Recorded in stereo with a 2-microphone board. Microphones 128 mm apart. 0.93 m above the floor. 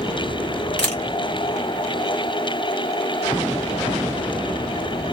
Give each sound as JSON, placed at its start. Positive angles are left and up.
{"t": 0.8, "sound": "a camera shutter", "side_deg": 10, "distance_m": 1.5}